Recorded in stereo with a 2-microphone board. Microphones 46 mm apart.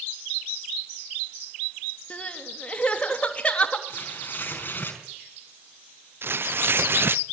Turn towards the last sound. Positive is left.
turn(degrees=-55)  # may be behind; listen again after turning